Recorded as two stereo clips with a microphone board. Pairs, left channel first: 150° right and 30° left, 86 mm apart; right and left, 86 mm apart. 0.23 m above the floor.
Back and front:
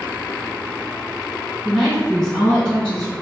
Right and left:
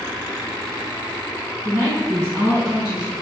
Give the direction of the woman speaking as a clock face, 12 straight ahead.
8 o'clock.